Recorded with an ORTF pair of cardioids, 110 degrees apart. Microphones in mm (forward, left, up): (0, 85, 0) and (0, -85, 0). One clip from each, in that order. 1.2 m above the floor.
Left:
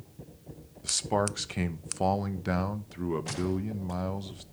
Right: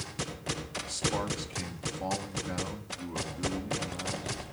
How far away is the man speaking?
About 1.3 m.